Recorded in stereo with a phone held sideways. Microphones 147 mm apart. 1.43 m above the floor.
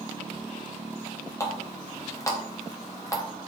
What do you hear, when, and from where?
1.4 s a running tap: 20° left (ahead or behind), 0.6 m